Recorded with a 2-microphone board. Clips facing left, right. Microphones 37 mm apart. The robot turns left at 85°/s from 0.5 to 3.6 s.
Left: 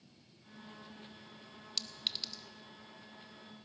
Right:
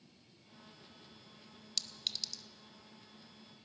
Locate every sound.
1.8 s a clink: 10° left (ahead or behind), 0.6 m; by 2.4 s 30° left (ahead or behind), 0.6 m